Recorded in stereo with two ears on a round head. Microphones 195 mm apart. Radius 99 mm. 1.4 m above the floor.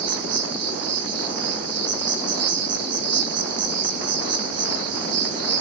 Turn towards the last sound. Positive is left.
turn(degrees=-85)